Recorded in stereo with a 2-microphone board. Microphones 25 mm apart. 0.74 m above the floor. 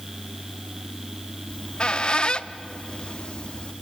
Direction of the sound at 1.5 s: 35° left (ahead or behind).